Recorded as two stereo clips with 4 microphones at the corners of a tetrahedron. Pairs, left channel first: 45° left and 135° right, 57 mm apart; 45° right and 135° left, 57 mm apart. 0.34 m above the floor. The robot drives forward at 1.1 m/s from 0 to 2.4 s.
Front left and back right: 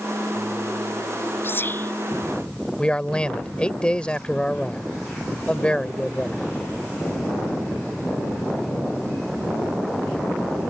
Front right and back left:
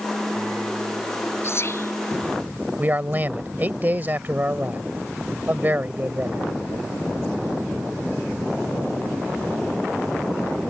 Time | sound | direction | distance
1.4 | whispering | 5° right | ?
2.8 | a man speaking | 105° left | ?